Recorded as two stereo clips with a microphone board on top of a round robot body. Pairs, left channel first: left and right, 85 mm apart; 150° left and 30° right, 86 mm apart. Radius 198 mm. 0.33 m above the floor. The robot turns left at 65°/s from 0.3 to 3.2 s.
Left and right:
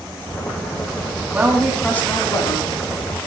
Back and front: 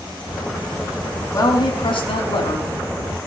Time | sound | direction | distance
1.3 | a woman speaking | 160° right | 3.5 m